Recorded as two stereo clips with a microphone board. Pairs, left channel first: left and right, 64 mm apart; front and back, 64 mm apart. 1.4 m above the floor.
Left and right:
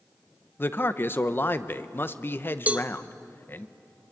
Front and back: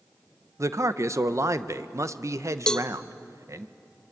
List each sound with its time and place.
0.6 s a man speaking: 140° left, 0.9 m
2.7 s a cowbell: 65° right, 0.7 m